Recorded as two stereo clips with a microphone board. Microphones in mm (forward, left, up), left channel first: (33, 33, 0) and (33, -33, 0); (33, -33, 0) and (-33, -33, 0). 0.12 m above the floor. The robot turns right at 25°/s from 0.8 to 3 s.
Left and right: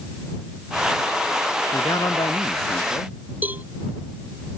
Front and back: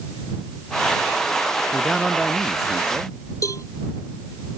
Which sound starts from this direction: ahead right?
A cowbell, at 3.4 s.